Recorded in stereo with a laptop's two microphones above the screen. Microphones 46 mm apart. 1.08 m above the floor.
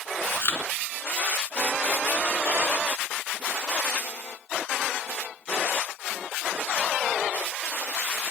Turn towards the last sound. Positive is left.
turn(degrees=60)  # may be behind; listen again after turning